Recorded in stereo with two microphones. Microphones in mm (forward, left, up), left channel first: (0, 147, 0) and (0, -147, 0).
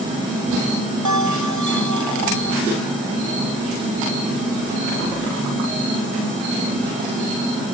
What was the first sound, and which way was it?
A bell, 70° right (ahead or behind).